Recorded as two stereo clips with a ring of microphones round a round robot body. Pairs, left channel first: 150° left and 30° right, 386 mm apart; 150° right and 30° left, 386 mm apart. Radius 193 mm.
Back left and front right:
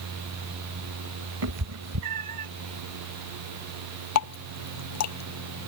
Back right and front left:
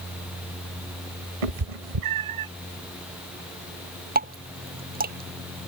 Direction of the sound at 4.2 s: 100° left.